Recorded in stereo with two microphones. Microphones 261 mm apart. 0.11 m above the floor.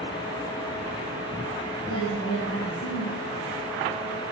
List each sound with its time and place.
1.9 s a woman speaking: 60° left (ahead or behind), 4.5 m